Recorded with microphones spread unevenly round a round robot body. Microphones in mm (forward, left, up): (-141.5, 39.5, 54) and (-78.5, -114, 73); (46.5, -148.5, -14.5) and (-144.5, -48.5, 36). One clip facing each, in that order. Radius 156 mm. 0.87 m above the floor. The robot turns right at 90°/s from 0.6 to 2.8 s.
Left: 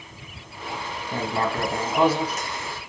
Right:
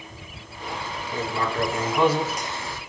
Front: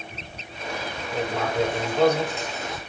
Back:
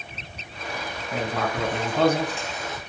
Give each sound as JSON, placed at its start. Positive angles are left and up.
{"t": 1.1, "sound": "writing", "azimuth_deg": 100, "distance_m": 1.4}